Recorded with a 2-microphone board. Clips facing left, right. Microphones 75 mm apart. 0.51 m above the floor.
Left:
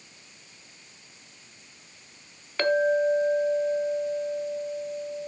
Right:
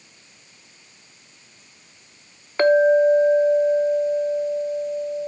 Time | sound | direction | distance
2.6 | a clink | 30° right (ahead or behind) | 0.5 m